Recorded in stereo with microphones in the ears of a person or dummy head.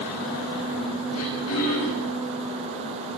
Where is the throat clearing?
75° left (ahead or behind), 6.5 m.